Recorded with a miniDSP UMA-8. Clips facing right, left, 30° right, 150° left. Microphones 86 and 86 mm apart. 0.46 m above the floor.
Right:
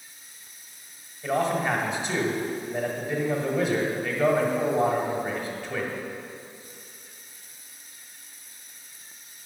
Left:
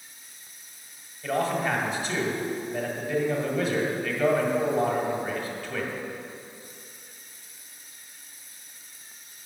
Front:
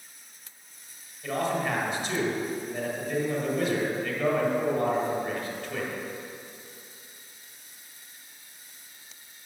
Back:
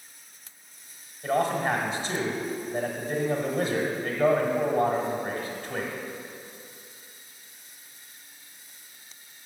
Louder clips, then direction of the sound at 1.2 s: Right 1 dB, back 3 dB; 155° right.